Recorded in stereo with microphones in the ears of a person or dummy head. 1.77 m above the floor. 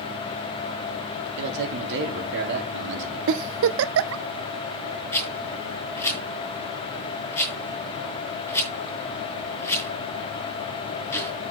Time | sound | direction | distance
1.4 | a man speaking | 65° right (ahead or behind) | 3.5 m
3.3 | a giggle | 70° right (ahead or behind) | 0.6 m
5.1 | a rattle | 10° left (ahead or behind) | 4.5 m